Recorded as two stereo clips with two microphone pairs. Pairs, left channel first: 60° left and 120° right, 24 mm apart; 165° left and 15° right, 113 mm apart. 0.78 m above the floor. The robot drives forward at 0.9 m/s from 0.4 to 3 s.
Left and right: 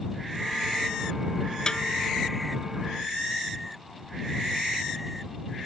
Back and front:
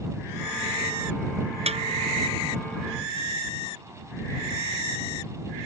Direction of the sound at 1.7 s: 5° left.